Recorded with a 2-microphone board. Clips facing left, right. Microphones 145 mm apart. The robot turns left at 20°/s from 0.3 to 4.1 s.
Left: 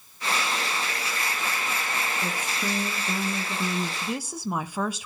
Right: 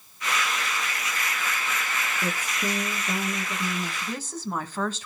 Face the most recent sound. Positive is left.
turn(degrees=10)  # may be behind; listen again after turning